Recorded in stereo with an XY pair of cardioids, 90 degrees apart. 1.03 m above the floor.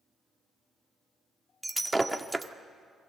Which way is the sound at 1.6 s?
15° right.